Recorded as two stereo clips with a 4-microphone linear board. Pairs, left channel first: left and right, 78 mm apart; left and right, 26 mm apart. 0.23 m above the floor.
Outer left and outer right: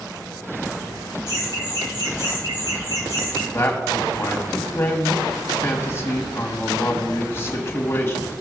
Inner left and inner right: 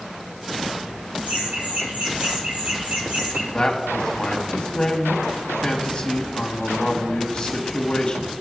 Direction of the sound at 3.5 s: 35° left (ahead or behind).